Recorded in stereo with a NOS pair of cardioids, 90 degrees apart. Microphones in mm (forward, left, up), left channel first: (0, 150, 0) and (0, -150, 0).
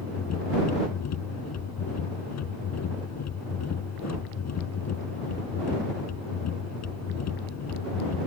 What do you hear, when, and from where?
0.0 s a machine running: 60° left